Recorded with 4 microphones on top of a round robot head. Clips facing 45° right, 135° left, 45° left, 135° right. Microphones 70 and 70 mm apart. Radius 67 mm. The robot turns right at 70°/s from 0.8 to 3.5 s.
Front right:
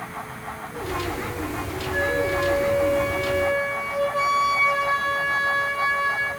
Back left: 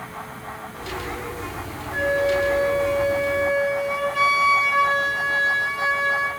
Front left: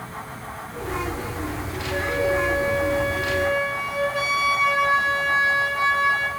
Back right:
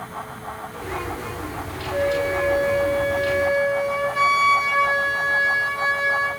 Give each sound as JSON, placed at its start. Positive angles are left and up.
{"t": 1.9, "sound": "a flute", "azimuth_deg": 50, "distance_m": 6.0}